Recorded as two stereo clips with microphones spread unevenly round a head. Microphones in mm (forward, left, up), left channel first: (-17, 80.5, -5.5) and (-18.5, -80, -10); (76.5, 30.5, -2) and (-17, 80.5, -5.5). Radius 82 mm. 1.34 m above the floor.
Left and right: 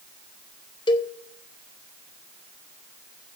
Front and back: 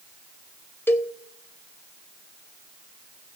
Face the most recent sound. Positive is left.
turn(degrees=35)